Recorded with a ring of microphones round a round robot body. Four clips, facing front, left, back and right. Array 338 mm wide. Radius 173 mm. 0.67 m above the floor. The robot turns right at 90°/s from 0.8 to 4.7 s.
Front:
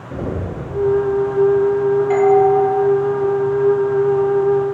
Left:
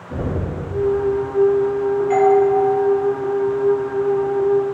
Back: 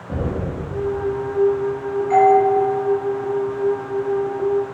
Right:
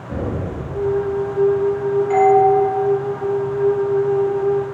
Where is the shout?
I don't hear a shout.